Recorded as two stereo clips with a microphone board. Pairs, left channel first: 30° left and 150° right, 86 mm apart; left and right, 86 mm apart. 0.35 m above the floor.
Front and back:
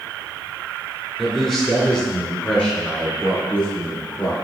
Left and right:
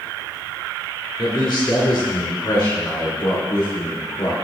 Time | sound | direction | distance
1.2 | a man speaking | 120° left | 3 m